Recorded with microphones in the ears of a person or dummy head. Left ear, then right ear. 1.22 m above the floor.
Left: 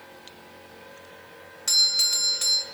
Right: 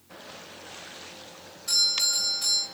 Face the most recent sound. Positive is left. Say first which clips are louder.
# left 3 dB
turn(degrees=60)  # may be behind; listen again after turning